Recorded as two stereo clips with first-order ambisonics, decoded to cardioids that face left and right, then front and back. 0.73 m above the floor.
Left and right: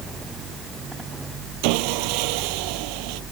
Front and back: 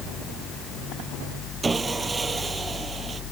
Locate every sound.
1.6 s sawing: 105° right